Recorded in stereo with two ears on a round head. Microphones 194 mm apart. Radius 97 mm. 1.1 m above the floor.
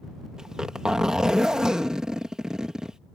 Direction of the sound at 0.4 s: 5° right (ahead or behind).